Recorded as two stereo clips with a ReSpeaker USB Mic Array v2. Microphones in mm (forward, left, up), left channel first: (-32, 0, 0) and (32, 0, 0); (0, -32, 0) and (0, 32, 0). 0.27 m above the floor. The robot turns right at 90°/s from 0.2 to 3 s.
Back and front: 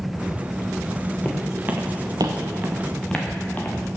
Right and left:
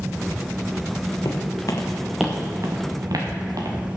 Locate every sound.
1.2 s footsteps: 110° right, 1.6 m; by 3.8 s 115° left, 2 m